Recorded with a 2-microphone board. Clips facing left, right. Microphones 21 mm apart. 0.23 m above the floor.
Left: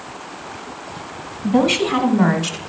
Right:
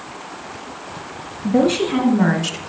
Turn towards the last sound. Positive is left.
turn(degrees=15)  # may be behind; listen again after turning